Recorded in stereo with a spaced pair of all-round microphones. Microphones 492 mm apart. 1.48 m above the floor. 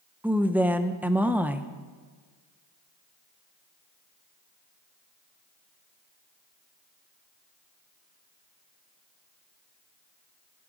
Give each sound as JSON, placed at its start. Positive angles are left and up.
{"t": 0.2, "sound": "a woman speaking", "side_deg": -5, "distance_m": 0.8}